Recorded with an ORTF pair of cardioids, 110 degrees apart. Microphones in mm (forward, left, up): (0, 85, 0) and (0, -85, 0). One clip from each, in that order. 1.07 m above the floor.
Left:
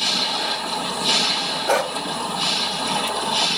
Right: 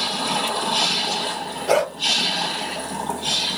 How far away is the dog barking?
About 2 m.